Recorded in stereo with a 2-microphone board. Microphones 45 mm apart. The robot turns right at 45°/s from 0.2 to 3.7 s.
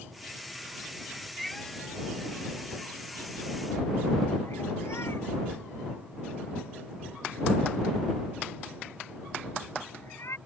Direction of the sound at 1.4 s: Centre (ahead or behind).